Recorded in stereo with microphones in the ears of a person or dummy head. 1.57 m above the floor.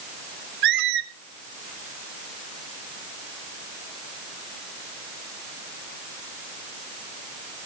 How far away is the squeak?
About 1.4 m.